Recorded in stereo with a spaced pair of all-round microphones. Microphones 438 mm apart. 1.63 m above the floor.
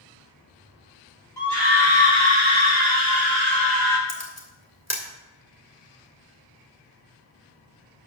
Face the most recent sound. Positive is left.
turn(degrees=35)  # may be behind; listen again after turning